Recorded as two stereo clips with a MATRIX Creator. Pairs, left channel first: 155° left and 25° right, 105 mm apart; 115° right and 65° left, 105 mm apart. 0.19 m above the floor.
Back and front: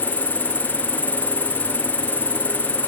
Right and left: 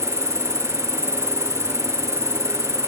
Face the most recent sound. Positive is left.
turn(degrees=-175)